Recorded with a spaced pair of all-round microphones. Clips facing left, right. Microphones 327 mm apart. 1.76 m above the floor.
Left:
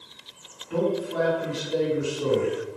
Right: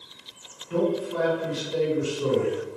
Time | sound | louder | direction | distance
0.7 | a man speaking | right 1 dB | 20° right (ahead or behind) | 1.5 m